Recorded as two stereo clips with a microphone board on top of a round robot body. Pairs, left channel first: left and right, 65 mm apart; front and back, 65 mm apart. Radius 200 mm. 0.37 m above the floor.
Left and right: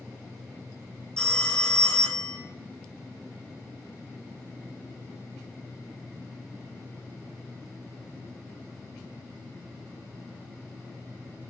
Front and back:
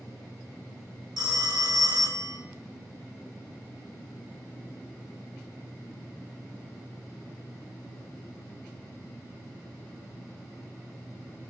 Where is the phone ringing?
170° left, 2 m.